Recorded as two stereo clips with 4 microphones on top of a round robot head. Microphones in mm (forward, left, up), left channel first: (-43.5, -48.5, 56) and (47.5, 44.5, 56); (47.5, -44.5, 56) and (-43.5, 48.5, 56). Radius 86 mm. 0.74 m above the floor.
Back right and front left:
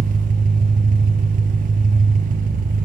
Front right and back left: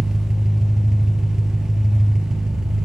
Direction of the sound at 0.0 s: 50° left.